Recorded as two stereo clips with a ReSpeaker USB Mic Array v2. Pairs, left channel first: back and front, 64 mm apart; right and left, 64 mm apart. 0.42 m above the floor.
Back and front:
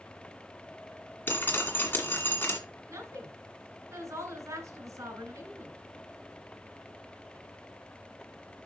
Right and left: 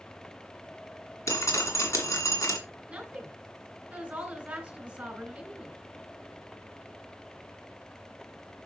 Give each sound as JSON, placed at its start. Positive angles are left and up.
{"t": 1.3, "sound": "dripping", "azimuth_deg": -120, "distance_m": 1.8}
{"t": 2.9, "sound": "a woman speaking", "azimuth_deg": 20, "distance_m": 2.5}